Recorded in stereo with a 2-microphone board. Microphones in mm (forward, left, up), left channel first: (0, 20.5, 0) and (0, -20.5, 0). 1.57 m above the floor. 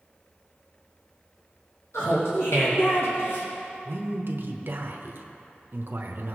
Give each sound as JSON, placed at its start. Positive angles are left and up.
{"t": 1.9, "sound": "laughter", "side_deg": 85, "distance_m": 2.5}
{"t": 3.9, "sound": "a man speaking", "side_deg": -60, "distance_m": 1.0}